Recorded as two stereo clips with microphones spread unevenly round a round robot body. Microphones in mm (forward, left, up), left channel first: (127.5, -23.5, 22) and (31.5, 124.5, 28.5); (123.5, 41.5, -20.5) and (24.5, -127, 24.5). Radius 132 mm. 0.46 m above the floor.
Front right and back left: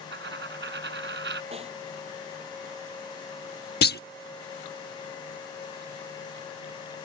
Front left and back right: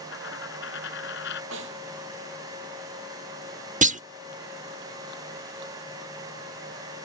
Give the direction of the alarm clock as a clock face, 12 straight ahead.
No alarm clock in this recording.